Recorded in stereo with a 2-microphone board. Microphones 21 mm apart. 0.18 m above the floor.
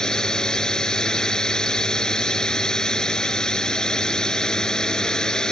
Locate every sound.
0.0 s a drone: 35° left (ahead or behind)